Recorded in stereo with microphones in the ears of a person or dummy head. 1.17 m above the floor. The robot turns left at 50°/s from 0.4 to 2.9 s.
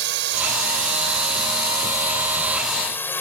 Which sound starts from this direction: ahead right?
A drone, at 0.0 s.